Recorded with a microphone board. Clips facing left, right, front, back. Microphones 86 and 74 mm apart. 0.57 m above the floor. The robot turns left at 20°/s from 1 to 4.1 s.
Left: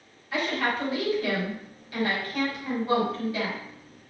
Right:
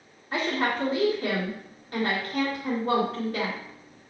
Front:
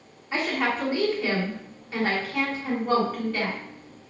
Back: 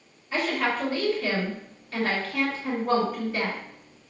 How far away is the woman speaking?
About 1.8 m.